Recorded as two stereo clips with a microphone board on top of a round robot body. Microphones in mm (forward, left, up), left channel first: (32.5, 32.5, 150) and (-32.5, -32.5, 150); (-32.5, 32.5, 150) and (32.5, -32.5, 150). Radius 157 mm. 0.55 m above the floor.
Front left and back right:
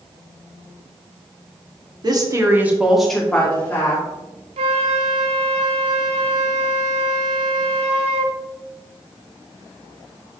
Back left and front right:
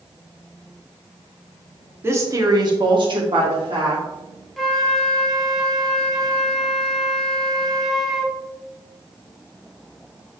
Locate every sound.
2.0 s a woman speaking: 105° right, 1.9 m; by 4.0 s 15° right, 3 m
4.6 s a flute: 135° right, 0.8 m